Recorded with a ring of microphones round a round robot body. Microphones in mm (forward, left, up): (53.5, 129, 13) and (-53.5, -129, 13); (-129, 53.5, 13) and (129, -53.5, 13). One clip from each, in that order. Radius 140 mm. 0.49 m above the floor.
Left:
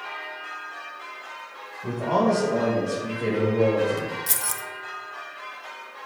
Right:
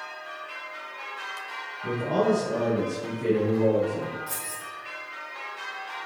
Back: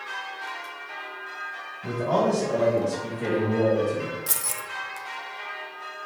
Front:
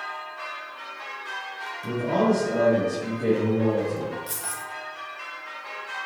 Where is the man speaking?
125° left, 3 m; by 4.2 s 95° left, 1.9 m.